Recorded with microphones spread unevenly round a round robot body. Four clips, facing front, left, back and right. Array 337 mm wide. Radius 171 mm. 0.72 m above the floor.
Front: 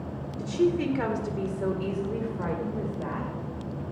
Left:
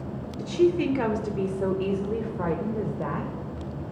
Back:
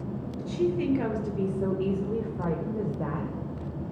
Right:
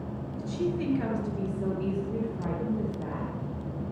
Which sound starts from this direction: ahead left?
A woman speaking, at 0.4 s.